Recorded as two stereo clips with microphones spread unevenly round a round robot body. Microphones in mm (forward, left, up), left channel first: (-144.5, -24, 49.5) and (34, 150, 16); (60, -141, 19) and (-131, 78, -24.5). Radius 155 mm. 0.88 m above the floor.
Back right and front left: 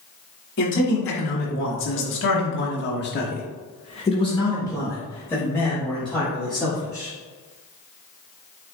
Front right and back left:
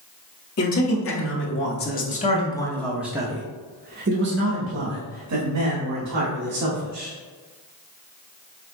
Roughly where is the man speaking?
Right.